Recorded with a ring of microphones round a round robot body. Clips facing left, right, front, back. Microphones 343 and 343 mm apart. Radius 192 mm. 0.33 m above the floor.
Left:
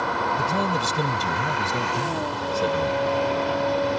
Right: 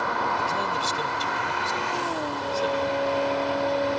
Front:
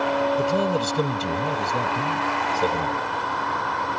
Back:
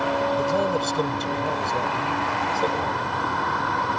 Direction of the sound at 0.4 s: 75° left.